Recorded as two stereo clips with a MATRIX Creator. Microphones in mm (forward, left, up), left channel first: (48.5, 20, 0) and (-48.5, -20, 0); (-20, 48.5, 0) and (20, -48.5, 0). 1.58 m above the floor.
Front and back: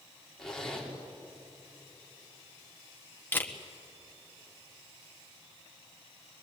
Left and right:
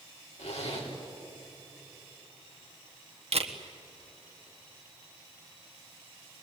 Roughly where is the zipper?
Left.